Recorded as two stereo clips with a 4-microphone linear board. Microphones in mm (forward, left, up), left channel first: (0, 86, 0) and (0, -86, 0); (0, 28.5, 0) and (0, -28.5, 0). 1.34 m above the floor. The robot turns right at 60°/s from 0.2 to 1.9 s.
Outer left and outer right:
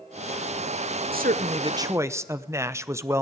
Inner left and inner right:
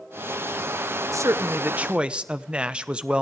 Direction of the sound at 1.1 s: 65° right.